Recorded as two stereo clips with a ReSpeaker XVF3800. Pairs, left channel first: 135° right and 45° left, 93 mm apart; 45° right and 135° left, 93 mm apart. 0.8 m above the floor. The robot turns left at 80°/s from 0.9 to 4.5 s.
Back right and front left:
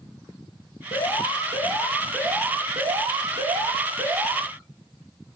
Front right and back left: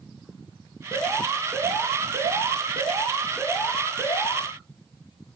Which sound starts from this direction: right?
An alarm, at 0.9 s.